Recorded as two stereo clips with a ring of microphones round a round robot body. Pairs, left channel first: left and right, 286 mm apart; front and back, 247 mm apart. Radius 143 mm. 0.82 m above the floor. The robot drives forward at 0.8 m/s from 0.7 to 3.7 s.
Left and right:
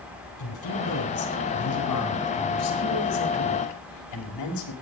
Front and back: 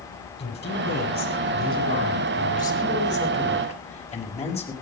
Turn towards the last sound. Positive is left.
turn(degrees=65)